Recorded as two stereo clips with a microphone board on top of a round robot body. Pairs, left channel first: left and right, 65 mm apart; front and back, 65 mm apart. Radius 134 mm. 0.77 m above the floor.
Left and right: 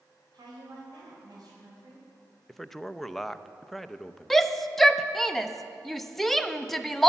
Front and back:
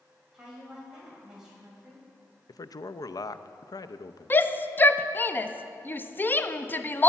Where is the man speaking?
5° left, 0.6 m.